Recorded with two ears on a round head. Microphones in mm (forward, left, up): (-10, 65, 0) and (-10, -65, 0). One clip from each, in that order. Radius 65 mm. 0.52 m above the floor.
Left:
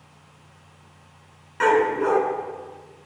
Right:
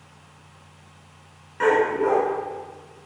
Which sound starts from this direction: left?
A dog barking, at 1.6 s.